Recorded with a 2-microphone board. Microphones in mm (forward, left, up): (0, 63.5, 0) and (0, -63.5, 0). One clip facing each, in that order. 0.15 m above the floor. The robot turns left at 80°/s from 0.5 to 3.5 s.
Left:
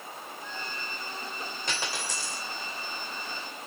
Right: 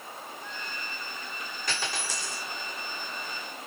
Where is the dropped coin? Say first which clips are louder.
Right 1 dB; 25° left, 2 m; by 2.5 s 35° right, 2 m.